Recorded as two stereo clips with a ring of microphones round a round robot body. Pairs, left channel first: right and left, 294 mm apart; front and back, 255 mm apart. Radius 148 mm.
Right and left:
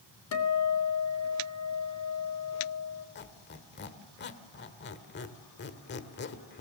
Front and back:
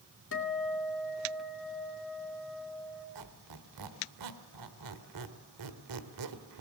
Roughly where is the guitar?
Ahead right.